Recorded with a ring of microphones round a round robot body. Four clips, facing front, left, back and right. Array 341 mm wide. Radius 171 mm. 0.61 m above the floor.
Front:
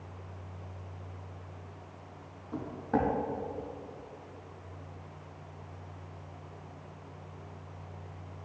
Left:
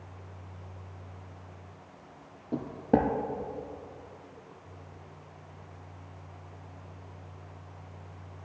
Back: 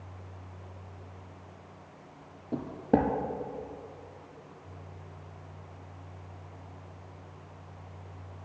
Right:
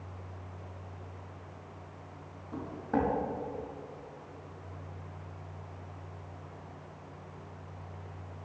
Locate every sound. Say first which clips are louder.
2.5 s footsteps: left 6 dB, back 5 dB; 135° left, 1.3 m